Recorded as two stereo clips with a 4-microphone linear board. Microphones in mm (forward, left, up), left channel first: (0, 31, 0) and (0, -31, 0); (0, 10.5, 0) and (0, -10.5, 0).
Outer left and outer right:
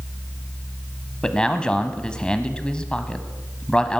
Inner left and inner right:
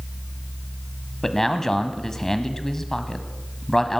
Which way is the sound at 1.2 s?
15° left (ahead or behind).